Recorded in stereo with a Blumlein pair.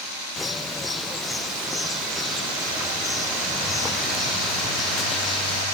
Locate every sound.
0.4 s a bird: 10° left